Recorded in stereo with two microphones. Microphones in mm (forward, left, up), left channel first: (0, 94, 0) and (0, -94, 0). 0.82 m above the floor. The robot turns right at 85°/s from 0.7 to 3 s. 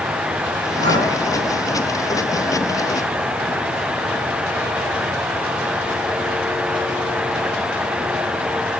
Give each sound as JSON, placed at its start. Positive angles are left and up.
{"t": 0.8, "sound": "breathing", "side_deg": -75, "distance_m": 2.5}